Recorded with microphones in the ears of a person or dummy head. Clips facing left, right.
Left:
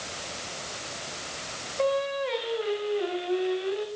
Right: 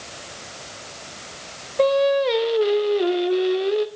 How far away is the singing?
About 1.0 m.